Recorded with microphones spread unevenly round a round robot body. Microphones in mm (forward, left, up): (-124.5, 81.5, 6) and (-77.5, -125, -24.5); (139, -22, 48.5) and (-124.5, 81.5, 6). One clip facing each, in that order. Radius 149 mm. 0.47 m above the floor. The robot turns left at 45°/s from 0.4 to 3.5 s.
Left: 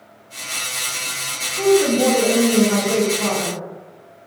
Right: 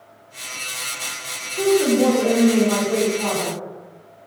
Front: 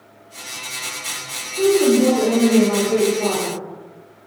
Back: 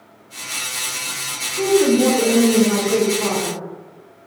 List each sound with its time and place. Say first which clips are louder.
1.6 s a woman speaking: left 1 dB, front 1 dB; 125° right, 0.9 m; by 3.6 s 145° left, 0.9 m